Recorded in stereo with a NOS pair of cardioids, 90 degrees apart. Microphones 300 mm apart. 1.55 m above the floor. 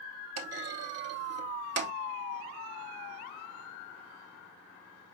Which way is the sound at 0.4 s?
55° right.